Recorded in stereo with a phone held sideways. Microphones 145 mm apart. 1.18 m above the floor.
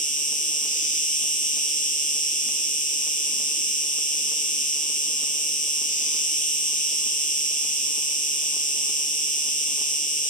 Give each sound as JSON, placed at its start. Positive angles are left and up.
{"t": 0.0, "sound": "an insect", "side_deg": 55, "distance_m": 1.4}